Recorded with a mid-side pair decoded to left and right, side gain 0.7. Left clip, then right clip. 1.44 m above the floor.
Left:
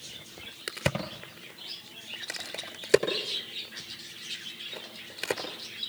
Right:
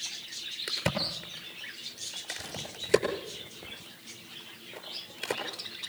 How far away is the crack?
About 5 m.